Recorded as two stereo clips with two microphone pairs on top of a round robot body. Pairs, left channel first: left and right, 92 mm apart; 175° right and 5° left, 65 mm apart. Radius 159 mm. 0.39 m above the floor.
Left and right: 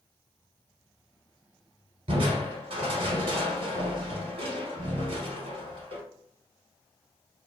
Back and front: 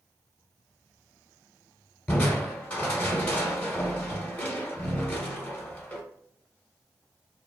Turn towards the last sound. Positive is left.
turn(degrees=-110)